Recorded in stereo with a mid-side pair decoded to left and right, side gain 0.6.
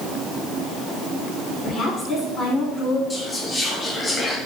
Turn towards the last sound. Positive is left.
turn(degrees=15)